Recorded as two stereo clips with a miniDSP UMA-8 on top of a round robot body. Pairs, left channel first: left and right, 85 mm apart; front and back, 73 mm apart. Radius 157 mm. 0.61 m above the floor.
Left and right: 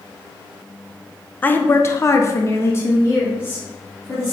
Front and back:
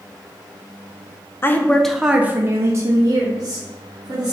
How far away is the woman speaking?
About 0.6 m.